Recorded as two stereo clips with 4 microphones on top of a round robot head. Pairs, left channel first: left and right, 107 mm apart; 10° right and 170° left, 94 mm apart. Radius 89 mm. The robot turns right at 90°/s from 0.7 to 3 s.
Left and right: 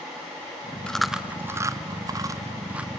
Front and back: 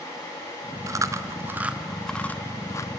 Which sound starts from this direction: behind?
Chewing, at 0.9 s.